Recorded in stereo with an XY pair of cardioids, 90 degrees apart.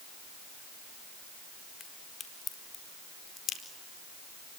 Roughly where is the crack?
Ahead left.